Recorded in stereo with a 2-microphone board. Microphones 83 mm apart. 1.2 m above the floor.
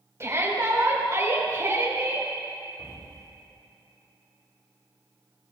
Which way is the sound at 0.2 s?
35° right (ahead or behind).